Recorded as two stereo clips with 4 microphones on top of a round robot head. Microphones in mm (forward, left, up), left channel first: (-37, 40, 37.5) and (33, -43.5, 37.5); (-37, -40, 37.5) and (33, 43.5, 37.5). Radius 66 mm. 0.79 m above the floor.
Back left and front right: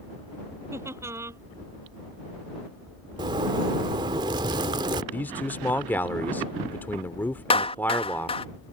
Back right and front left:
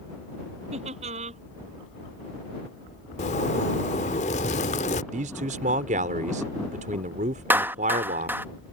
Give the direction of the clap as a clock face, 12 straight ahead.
8 o'clock.